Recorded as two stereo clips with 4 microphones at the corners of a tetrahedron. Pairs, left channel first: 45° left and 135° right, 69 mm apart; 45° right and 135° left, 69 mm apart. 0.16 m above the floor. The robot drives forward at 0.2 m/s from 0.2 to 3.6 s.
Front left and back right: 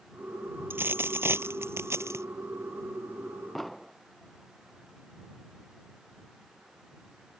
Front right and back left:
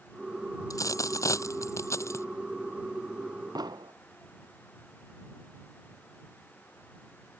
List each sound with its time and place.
0.7 s a dropped coin: 75° right; by 2.3 s 90° right
3.5 s an explosion: 135° left